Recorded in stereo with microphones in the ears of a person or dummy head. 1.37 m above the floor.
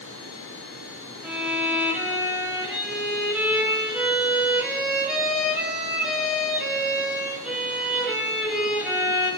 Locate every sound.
1.2 s a violin: 5° right (ahead or behind), 5.5 m